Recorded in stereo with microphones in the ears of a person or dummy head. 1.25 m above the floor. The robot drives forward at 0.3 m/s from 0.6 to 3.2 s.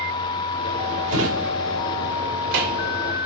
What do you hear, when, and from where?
1.1 s a drawer: 65° right (ahead or behind), 1.5 m; by 2.9 s 60° right (ahead or behind), 1.6 m